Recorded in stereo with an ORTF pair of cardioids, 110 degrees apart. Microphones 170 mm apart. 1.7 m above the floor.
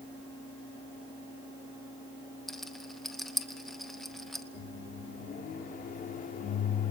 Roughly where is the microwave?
Ahead left.